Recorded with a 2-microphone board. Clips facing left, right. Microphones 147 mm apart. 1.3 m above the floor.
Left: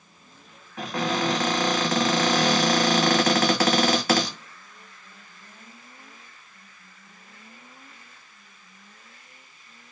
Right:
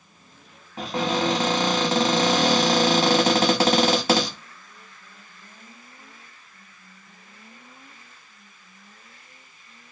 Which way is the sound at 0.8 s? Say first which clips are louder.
Right 2 dB; 25° right (ahead or behind).